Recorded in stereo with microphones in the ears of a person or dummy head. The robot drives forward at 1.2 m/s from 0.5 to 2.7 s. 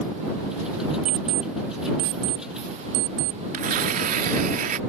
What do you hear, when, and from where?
1.1 s an alarm clock: 75° right (ahead or behind); by 3.4 s 65° right (ahead or behind)
3.5 s tearing paper: 50° right (ahead or behind)